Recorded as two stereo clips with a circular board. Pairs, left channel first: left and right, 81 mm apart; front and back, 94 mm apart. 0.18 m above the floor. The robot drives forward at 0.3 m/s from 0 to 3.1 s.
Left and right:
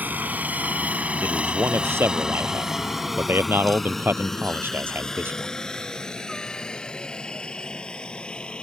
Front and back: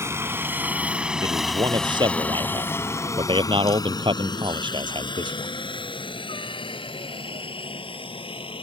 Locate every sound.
0.0 s a helicopter: 145° right; by 8.6 s 15° left
1.2 s a man speaking: 145° right; by 5.5 s 150° right